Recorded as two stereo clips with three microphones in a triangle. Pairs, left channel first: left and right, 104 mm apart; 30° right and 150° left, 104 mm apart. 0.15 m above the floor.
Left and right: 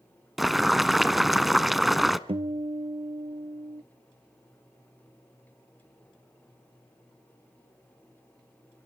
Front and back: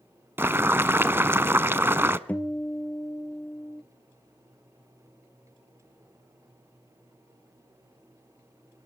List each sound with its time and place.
0.4 s boiling: 175° right, 0.7 m
2.3 s a guitar: 105° right, 0.9 m